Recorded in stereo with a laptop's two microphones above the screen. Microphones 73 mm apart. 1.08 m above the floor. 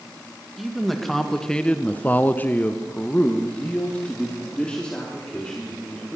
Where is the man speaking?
Centre (ahead or behind), 1.6 m; by 6.2 s 10° left (ahead or behind), 4 m.